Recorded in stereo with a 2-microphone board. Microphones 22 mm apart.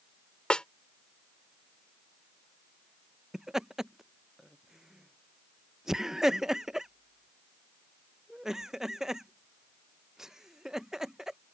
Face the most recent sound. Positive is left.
turn(degrees=-20)  # may be behind; listen again after turning